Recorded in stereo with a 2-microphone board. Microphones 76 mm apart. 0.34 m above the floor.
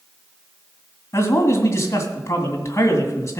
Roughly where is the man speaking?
Left.